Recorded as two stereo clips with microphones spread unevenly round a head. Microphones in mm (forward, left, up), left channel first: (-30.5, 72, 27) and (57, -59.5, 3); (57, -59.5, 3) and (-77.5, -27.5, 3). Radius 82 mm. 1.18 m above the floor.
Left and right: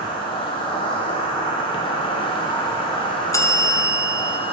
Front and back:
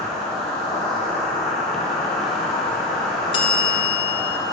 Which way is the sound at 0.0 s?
75° left.